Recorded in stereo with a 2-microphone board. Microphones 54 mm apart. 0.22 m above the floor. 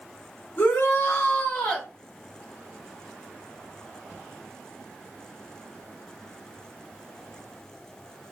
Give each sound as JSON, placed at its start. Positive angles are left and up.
{"t": 0.6, "sound": "a shout", "side_deg": 35, "distance_m": 1.3}